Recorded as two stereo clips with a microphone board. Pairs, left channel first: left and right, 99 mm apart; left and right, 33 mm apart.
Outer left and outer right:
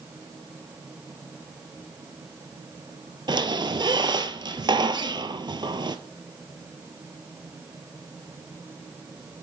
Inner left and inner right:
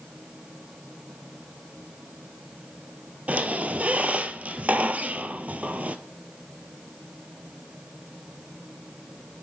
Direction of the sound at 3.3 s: 50° right (ahead or behind).